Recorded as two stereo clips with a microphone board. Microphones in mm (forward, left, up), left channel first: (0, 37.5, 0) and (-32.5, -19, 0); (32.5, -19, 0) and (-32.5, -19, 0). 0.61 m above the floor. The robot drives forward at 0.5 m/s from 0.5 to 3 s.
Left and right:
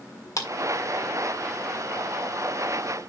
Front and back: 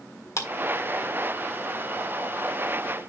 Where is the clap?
35° left, 1.5 m.